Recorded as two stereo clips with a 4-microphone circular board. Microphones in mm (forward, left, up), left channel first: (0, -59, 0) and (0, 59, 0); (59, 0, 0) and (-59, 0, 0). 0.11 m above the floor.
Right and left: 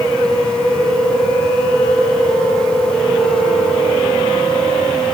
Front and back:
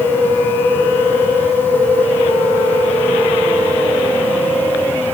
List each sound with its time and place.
Only background noise.